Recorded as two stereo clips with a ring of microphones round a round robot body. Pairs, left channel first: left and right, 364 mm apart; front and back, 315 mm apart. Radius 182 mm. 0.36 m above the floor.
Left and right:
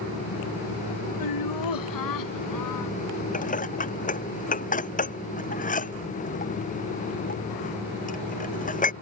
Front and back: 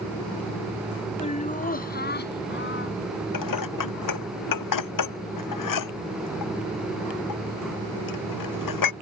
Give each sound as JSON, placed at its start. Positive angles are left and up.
{"t": 1.2, "sound": "laughter", "azimuth_deg": 70}
{"t": 3.3, "sound": "dishes clattering", "azimuth_deg": 20}